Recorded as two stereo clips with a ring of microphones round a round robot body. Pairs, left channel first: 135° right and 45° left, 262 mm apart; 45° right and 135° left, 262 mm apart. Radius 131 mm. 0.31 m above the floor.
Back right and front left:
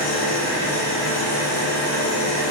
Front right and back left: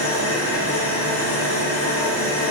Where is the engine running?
110° right, 7 m.